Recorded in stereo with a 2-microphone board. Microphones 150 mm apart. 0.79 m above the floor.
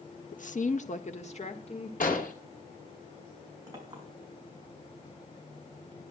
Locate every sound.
0.3 s a woman speaking: 55° left (ahead or behind), 0.7 m; by 1.9 s 45° left (ahead or behind), 2.5 m
2.0 s an explosion: 60° left (ahead or behind), 2.5 m
3.7 s a clink: 25° right (ahead or behind), 5 m